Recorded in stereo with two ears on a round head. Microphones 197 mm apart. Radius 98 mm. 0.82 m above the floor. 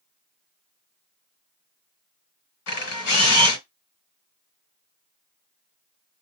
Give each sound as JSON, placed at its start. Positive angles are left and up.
{"t": 2.7, "sound": "a camera shutter", "side_deg": 75, "distance_m": 2.0}